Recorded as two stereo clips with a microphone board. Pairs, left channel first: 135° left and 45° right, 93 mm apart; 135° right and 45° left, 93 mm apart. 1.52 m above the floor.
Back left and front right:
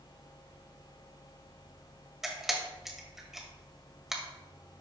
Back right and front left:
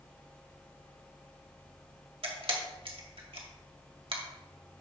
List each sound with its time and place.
2.2 s a camera shutter: 45° left, 1.9 m